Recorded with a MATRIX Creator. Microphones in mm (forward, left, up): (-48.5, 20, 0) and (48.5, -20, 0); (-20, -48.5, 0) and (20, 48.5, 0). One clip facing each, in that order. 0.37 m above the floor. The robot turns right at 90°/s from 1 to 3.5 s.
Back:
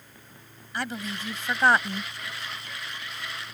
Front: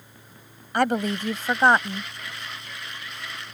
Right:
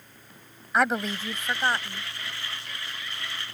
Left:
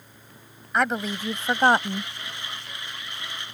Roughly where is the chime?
No chime in this recording.